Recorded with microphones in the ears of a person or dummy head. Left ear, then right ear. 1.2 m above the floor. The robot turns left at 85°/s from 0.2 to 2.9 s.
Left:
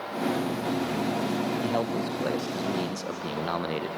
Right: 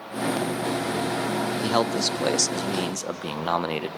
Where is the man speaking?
30° right, 0.5 m; by 3.9 s 140° right, 0.5 m.